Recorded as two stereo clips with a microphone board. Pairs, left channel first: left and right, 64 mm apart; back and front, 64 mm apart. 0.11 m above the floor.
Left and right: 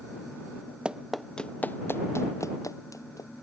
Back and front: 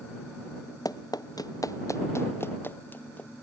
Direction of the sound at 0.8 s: 165° right.